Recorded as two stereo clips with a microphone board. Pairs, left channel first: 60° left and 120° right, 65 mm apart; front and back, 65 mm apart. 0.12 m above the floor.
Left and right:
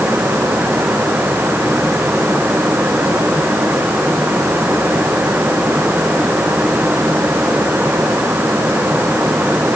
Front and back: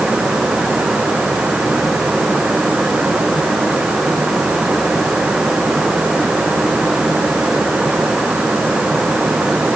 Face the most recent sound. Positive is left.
No sound to turn to.